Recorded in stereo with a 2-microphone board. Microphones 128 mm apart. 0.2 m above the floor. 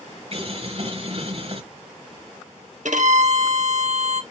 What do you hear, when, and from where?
0.3 s boiling: 50° right (ahead or behind), 4 m
2.9 s a violin: 70° right (ahead or behind), 0.9 m